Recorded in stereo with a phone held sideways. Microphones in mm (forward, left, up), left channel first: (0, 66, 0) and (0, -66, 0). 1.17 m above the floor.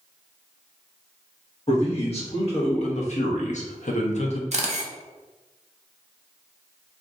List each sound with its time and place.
1.7 s a man speaking: 45° left (ahead or behind), 1.6 m; by 4.4 s 50° left (ahead or behind), 0.6 m
4.5 s a camera shutter: 55° right (ahead or behind), 0.6 m